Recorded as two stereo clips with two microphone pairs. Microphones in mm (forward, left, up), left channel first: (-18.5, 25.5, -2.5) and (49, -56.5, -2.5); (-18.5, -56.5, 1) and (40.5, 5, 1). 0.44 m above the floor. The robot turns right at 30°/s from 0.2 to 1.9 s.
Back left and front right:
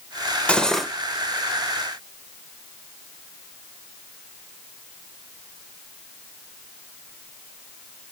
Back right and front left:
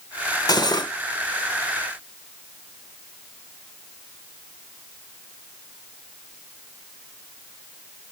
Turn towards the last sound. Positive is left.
turn(degrees=-110)